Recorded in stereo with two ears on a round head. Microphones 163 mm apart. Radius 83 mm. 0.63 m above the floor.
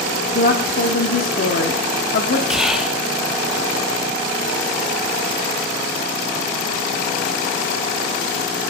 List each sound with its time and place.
0.3 s a woman speaking: 50° left (ahead or behind), 1.0 m
2.5 s whispering: 5° right (ahead or behind), 1.0 m